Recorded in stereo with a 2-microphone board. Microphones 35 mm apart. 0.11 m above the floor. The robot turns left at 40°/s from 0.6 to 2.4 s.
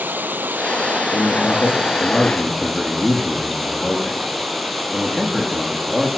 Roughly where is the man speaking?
Ahead left.